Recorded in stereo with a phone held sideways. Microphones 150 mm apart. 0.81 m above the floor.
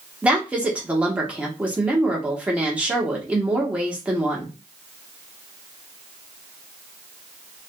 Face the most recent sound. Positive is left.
turn(degrees=-10)  # may be behind; listen again after turning